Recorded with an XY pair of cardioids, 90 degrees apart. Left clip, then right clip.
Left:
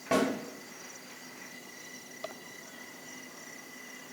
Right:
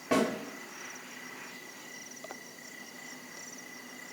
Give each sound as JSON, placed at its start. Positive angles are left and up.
{"t": 0.1, "sound": "a snare drum", "azimuth_deg": 15, "distance_m": 1.6}